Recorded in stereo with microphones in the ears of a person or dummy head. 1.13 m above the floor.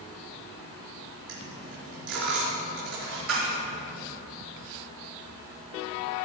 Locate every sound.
1.3 s a dropped coin: 70° right (ahead or behind), 3.5 m